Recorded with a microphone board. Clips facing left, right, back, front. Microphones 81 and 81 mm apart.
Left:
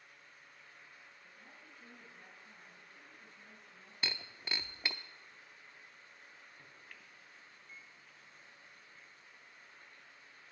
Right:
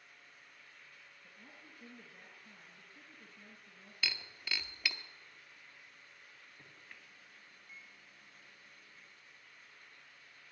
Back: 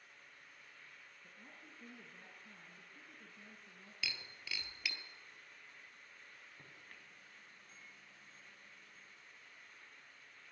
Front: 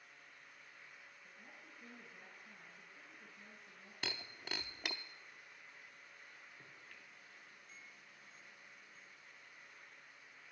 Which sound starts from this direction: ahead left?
Breaking glass, at 4.0 s.